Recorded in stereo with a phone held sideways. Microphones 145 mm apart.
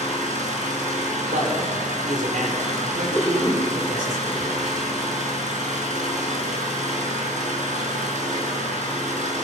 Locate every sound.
0.0 s an engine running: 55° right (ahead or behind), 5 m
1.3 s a man speaking: 65° right (ahead or behind), 4.5 m
3.1 s a cough: centre (ahead or behind), 5 m